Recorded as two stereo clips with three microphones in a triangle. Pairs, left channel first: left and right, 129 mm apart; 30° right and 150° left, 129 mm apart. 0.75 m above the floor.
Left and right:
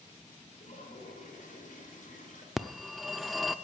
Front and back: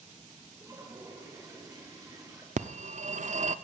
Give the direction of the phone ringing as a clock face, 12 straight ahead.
6 o'clock.